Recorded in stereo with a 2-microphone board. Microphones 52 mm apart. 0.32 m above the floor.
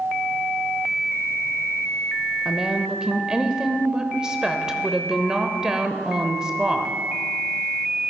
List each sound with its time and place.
2.5 s a woman speaking: 15° right (ahead or behind), 0.8 m